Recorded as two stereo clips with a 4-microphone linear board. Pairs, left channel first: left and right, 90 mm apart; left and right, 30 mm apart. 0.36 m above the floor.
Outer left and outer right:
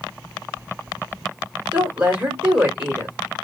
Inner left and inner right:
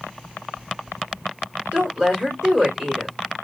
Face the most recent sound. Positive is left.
turn(degrees=-20)  # may be behind; listen again after turning